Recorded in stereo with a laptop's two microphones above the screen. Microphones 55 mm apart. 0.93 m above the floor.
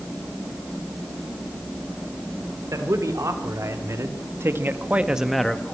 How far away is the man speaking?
About 2.5 m.